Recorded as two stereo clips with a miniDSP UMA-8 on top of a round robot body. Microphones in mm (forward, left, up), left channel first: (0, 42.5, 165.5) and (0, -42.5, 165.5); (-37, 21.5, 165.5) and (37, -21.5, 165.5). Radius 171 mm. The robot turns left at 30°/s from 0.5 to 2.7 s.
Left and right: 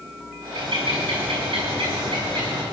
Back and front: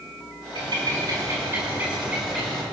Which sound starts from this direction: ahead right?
A bird, at 0.6 s.